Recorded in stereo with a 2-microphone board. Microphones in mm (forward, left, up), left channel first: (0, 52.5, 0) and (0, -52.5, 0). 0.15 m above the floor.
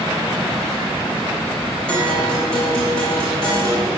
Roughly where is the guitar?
Centre.